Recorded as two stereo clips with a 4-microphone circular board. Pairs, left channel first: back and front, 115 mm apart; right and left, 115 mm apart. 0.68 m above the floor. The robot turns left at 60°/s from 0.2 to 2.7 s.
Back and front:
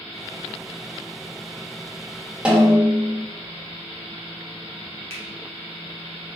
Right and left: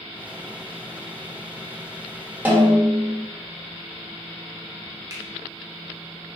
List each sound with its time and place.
2.5 s a snare drum: 60° left, 1.2 m; by 3.2 s 45° left, 1.2 m
5.1 s a finger snap: 35° left, 1.2 m